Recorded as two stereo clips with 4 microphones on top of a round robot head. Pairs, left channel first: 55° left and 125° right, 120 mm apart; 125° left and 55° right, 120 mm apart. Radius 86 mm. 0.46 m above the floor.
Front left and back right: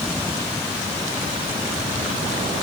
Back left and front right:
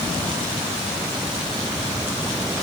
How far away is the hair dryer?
I don't hear a hair dryer.